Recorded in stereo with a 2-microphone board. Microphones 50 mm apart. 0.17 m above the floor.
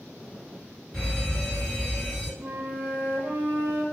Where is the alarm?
10° left (ahead or behind), 1.6 m.